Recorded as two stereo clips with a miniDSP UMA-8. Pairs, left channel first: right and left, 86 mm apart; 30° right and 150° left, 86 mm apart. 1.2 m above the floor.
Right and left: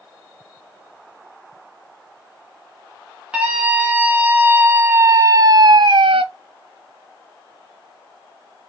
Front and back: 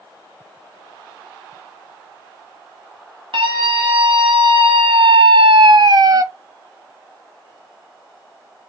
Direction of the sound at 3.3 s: 165° left.